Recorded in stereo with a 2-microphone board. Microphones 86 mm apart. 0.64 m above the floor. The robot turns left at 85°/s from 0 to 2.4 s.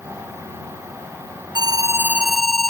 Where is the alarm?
115° right; by 2.7 s 175° left.